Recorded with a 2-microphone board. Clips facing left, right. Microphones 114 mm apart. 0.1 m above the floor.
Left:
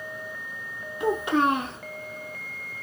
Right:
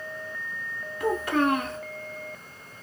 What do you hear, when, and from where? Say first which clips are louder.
1.0 s a child speaking: left 1 dB; 20° left (ahead or behind), 0.7 m